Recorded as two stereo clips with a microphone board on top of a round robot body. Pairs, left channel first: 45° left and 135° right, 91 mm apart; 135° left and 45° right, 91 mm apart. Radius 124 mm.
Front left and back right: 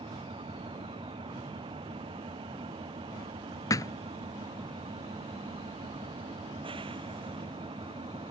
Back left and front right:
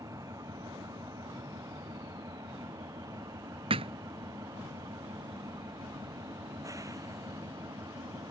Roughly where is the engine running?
Right.